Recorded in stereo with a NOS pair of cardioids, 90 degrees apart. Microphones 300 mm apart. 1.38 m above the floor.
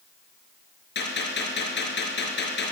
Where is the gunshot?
35° left, 4.5 m.